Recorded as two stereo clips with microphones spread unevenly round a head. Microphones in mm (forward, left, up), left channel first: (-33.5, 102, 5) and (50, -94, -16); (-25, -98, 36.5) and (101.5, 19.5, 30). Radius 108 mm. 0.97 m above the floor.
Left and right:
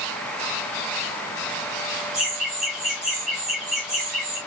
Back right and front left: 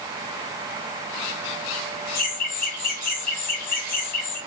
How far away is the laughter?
About 1.0 m.